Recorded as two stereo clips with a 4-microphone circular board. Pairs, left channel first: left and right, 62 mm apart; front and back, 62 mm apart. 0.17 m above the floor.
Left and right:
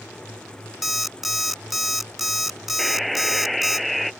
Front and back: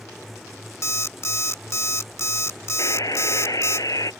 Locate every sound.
0.8 s an alarm clock: 5° right
2.8 s a buzzer: straight ahead